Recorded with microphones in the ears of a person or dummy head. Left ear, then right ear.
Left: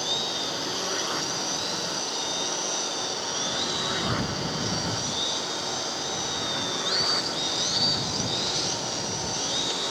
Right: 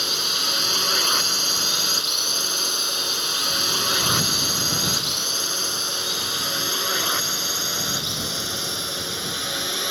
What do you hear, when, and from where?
0.0 s a drone: 70° right (ahead or behind)